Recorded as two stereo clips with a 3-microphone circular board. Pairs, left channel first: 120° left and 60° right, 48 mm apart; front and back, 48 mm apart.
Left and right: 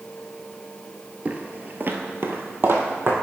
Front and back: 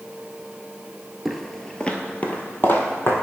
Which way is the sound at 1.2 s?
95° right.